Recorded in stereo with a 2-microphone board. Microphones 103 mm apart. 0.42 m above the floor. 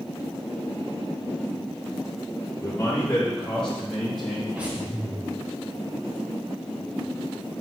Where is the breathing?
15° right (ahead or behind), 2.5 m.